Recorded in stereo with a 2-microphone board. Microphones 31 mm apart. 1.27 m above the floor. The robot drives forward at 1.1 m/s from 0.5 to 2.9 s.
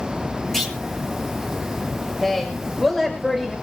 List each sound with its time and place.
0.5 s a clunk: 10° left (ahead or behind), 8 m
2.2 s a woman speaking: 10° left (ahead or behind), 5 m